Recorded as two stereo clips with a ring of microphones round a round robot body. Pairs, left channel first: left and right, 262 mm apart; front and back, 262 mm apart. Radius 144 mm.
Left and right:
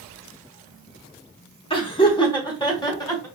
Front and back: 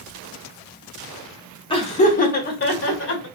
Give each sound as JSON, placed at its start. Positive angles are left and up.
{"t": 1.7, "sound": "laughter", "azimuth_deg": 45, "distance_m": 1.1}